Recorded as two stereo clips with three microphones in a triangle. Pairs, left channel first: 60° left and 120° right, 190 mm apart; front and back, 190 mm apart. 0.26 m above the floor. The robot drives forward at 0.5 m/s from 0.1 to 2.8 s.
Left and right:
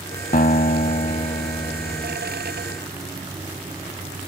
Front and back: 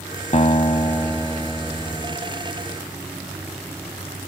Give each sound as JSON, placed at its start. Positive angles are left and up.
{"t": 0.3, "sound": "a guitar", "azimuth_deg": 45}